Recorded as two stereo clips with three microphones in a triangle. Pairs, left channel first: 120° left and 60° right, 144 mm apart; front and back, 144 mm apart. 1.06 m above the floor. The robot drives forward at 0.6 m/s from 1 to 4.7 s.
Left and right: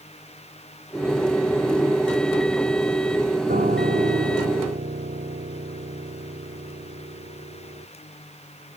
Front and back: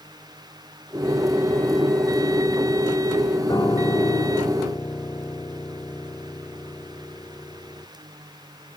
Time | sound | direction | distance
3.5 | a piano | 65° right | ?